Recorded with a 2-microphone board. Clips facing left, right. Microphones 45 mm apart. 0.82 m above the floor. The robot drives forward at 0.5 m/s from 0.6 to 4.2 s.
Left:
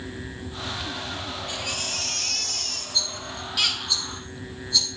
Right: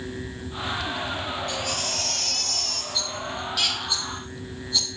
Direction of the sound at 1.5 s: 15° left (ahead or behind).